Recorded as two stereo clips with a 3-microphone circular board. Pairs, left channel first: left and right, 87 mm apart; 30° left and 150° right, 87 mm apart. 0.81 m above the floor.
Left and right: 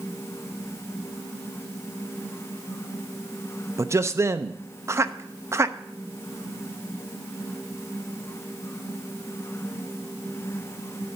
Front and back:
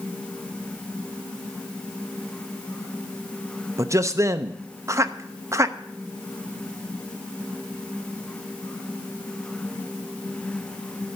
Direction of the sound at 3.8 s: 125° right.